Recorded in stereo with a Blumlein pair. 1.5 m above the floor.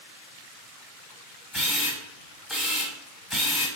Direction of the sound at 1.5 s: 10° left.